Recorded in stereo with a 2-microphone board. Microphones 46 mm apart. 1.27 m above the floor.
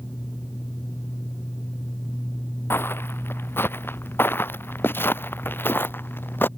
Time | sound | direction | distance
2.7 | footsteps | 60° left (ahead or behind) | ?